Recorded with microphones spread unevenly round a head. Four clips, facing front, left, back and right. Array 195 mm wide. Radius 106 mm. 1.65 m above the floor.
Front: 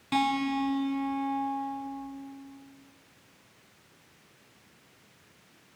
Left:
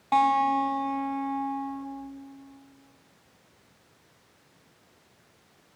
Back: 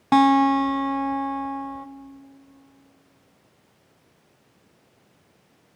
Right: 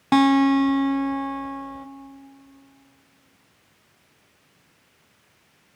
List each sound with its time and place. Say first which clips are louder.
0.1 s a guitar: right 5 dB, back 11 dB; 120° right, 0.9 m